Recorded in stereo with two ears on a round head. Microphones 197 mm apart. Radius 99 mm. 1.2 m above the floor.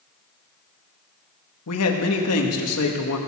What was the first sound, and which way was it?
A man speaking, 80° left.